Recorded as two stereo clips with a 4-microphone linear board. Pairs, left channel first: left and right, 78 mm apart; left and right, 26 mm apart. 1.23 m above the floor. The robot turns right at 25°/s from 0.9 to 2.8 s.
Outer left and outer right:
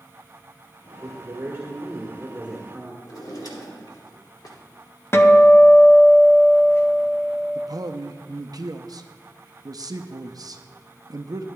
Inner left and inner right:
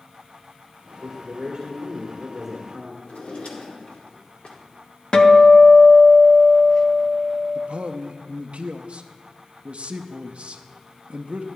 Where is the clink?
I don't hear a clink.